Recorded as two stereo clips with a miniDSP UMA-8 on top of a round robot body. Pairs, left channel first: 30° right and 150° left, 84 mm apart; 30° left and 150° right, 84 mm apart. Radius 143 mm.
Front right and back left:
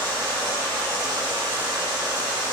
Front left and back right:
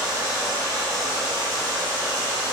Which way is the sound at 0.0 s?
175° left.